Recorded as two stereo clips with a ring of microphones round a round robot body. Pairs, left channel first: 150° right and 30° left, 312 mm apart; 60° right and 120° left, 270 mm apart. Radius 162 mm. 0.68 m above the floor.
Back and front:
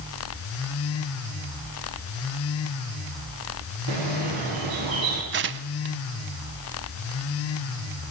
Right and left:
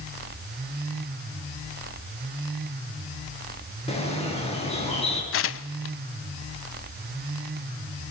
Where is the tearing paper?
25° right, 1.0 m.